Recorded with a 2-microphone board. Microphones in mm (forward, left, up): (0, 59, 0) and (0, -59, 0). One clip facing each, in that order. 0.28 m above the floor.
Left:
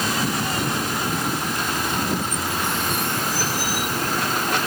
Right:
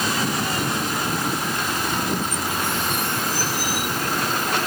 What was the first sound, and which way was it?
Only background noise.